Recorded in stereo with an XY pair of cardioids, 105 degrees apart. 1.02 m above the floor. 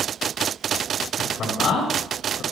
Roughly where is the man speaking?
Ahead left.